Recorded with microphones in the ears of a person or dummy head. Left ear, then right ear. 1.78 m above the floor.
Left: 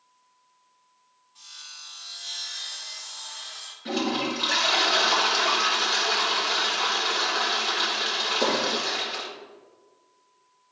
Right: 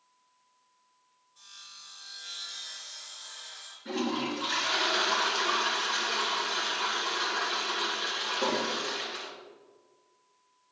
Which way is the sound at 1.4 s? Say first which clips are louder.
Left 6 dB; 45° left (ahead or behind).